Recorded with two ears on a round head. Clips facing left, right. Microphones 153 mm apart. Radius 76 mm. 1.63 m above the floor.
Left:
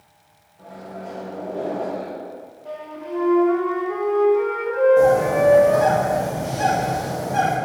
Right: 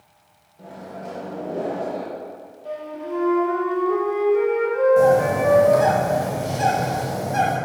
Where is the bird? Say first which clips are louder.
Left 1 dB; 30° right (ahead or behind), 1.8 m.